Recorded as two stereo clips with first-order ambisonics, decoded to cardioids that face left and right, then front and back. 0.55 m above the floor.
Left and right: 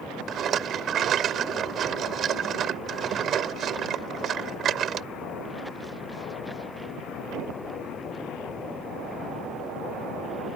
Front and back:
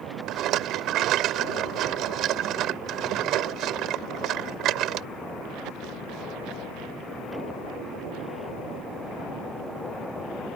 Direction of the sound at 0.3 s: 140° right.